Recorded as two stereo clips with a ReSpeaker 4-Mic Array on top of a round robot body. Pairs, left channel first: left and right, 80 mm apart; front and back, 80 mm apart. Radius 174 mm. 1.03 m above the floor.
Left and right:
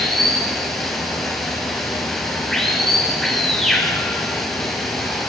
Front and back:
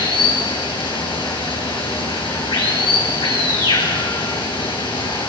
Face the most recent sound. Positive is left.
turn(degrees=5)